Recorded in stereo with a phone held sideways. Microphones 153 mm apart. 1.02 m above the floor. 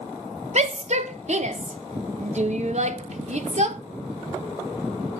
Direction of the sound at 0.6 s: 50° right (ahead or behind).